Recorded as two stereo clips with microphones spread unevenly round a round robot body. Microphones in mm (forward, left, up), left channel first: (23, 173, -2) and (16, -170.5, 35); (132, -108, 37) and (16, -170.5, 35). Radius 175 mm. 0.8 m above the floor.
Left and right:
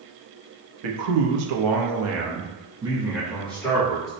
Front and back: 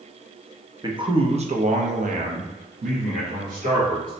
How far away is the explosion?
No explosion in this recording.